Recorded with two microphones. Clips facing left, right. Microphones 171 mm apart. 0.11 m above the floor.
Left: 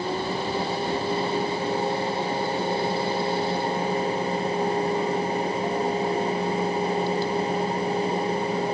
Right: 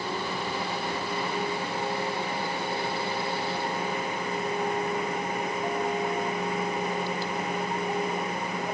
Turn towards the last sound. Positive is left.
No sound to turn to.